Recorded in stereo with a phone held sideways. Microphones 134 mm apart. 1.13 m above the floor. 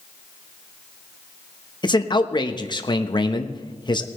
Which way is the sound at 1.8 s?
35° left (ahead or behind).